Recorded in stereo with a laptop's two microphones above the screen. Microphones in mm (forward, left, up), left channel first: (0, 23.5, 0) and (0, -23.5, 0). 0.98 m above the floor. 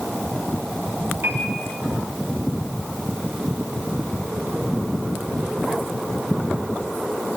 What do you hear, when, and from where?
1.2 s a piano: 55° right (ahead or behind), 6 m